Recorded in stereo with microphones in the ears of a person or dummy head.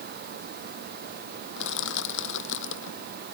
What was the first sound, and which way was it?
Crushing, 65° left (ahead or behind).